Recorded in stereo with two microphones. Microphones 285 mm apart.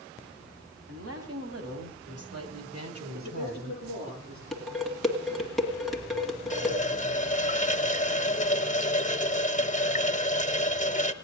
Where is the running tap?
25° left (ahead or behind), 0.7 m.